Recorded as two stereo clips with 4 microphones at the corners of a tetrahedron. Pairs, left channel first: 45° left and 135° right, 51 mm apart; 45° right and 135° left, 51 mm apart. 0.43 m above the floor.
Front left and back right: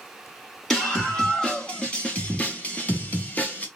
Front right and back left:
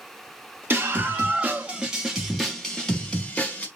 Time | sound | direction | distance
0.7 | a scream | 120° left | 1.6 m